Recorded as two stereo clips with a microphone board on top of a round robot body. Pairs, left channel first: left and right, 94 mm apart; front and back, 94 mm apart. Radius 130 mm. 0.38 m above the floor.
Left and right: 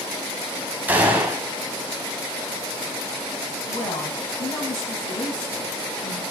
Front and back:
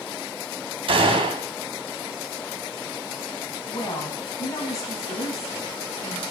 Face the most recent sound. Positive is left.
turn(degrees=50)